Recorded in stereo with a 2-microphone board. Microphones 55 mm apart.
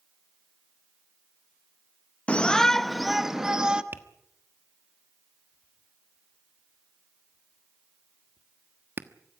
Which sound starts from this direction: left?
A shout, at 2.3 s.